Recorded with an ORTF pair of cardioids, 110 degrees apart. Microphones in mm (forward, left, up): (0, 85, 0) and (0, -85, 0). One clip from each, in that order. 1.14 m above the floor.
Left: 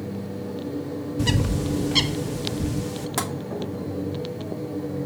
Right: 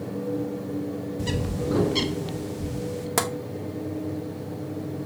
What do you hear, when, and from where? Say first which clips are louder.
1.2 s a bird: left 5 dB; 35° left, 0.8 m
3.2 s tapping: right 3 dB; 25° right, 1.4 m